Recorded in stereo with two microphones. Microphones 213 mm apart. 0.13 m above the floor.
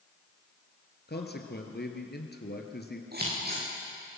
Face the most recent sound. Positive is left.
turn(degrees=-50)  # may be behind; listen again after turning